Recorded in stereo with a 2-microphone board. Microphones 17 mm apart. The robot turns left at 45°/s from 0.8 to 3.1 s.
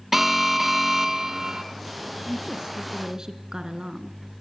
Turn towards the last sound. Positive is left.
turn(degrees=-130)